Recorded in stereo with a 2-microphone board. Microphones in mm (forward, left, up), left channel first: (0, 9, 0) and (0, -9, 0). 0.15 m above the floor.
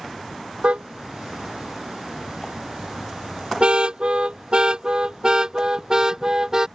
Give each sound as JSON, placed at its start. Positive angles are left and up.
{"t": 0.6, "sound": "a car horn", "side_deg": -80}